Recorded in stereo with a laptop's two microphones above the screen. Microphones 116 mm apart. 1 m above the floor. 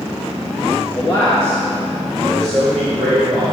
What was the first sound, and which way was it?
A man speaking, 40° left (ahead or behind).